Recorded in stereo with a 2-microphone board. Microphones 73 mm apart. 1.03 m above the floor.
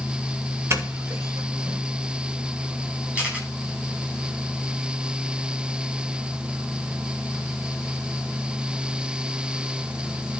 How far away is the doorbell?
About 2.5 m.